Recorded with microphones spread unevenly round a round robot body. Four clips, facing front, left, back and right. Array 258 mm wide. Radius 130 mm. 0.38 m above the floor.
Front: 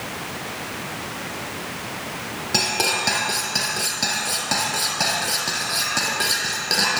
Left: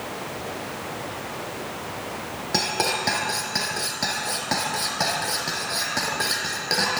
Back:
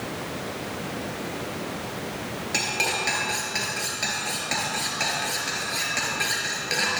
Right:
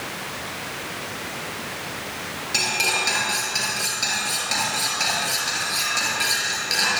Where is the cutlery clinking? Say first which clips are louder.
Left 2 dB, front 5 dB; 35° left, 4.5 m.